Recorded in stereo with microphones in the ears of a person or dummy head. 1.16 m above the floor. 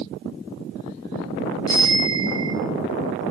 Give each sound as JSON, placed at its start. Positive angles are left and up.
{"t": 1.7, "sound": "a bicycle bell", "side_deg": 15, "distance_m": 6.5}